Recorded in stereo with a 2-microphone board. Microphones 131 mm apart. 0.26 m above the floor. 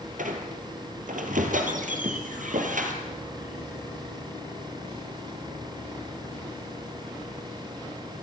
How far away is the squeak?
About 2.5 m.